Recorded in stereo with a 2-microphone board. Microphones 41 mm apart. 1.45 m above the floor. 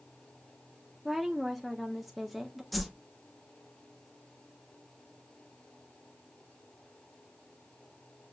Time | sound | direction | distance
1.1 | a woman speaking | centre (ahead or behind) | 0.5 m
2.7 | a whoosh | centre (ahead or behind) | 0.6 m